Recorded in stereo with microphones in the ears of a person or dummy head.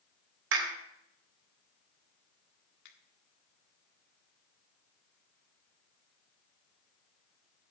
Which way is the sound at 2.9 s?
55° left (ahead or behind).